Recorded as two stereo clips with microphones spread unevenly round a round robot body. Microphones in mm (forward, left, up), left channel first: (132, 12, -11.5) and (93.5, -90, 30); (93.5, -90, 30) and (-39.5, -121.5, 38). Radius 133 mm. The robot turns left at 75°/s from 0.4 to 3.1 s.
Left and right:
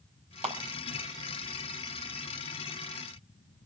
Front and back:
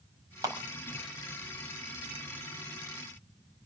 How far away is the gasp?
I don't hear a gasp.